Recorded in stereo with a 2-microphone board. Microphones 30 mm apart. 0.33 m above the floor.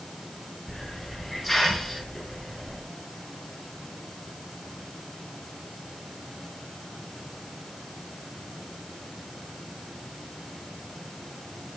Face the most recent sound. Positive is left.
turn(degrees=-5)  # may be behind; listen again after turning